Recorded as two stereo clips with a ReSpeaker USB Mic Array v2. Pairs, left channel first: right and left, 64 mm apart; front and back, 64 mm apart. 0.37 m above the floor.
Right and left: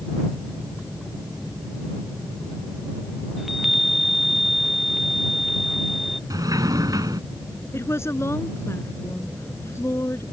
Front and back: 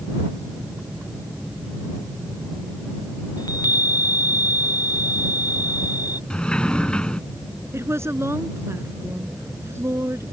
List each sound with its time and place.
3.4 s a chime: straight ahead
6.3 s a sliding door: 75° left
7.7 s a woman speaking: 135° right